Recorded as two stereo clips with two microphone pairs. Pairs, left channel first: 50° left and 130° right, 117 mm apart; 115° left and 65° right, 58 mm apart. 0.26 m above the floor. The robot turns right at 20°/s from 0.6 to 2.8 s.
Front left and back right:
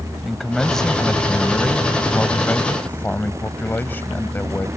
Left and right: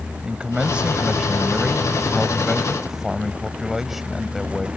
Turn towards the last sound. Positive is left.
turn(degrees=10)